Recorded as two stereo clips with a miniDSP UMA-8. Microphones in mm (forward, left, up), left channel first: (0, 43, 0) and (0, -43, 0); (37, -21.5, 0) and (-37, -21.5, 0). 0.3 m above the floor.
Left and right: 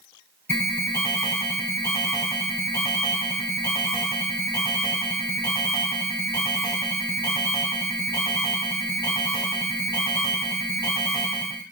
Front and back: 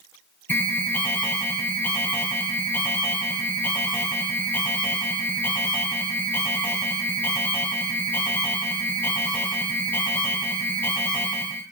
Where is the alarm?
45° left, 1.2 m.